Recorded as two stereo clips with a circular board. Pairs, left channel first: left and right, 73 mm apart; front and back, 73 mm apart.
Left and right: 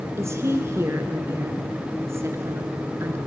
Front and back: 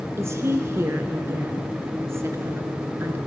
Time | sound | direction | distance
0.2 | a woman speaking | 135° right | 2.5 m